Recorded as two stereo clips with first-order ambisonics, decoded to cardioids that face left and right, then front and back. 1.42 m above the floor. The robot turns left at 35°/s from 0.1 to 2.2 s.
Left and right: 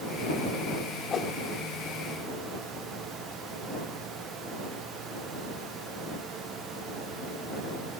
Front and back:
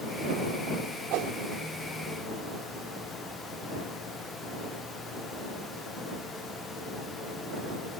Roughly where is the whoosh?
Behind left.